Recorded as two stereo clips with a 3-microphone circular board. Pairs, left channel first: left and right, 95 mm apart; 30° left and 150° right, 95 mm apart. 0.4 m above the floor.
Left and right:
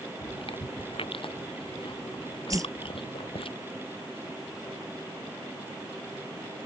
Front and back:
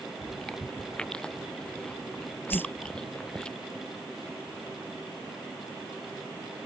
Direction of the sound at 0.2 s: 110° left.